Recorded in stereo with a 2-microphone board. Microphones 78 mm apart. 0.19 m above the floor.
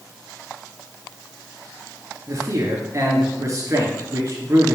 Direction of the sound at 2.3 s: 40° right (ahead or behind).